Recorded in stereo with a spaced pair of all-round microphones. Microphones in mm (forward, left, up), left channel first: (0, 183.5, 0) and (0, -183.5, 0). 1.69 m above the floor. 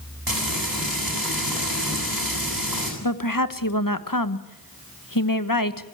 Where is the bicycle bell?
No bicycle bell in this recording.